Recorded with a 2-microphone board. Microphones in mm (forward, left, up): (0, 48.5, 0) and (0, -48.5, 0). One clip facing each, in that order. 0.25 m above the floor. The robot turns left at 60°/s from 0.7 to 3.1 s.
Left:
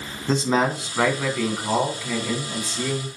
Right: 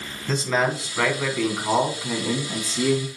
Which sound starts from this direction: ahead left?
A man speaking, at 0.3 s.